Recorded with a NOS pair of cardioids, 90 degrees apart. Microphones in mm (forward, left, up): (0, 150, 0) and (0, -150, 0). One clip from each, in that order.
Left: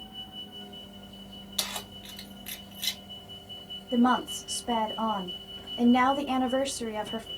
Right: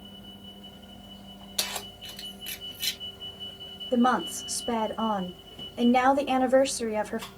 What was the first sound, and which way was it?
Keys jangling, 10° right.